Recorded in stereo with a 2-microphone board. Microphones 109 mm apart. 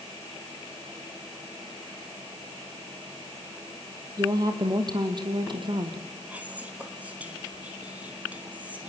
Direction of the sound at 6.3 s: 15° right (ahead or behind).